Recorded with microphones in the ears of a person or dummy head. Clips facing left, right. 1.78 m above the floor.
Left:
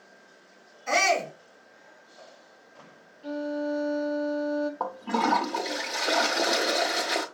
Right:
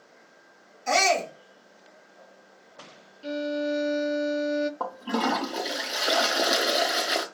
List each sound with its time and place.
0.9 s a shout: 85° right, 3 m
3.2 s a violin: 35° right (ahead or behind), 0.5 m
4.8 s a toilet flushing: 15° right (ahead or behind), 0.8 m